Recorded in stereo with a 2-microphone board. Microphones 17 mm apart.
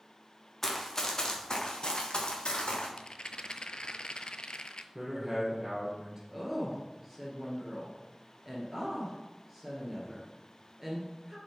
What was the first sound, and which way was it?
Running footsteps, 15° left (ahead or behind).